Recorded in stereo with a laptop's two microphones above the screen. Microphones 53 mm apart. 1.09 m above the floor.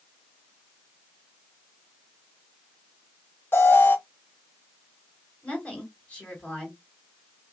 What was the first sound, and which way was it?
An alarm, 45° left (ahead or behind).